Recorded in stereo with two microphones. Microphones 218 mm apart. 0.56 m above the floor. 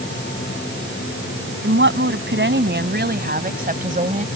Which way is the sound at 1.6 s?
65° right (ahead or behind).